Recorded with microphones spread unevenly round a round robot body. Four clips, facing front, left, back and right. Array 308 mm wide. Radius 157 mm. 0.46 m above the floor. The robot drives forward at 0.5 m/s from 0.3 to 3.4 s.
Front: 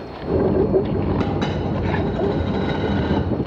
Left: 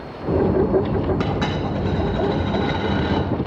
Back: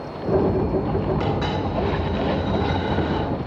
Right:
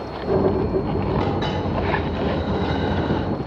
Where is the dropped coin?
50° left, 2.5 m; by 3.2 s 75° left, 2.0 m.